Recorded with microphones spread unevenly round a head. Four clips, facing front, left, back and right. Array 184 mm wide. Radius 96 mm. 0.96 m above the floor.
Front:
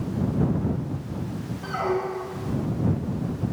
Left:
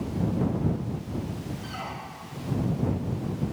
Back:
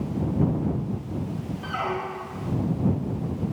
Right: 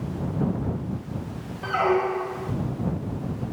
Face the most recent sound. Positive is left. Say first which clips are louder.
# right 15 dB, front 4 dB
turn(degrees=-65)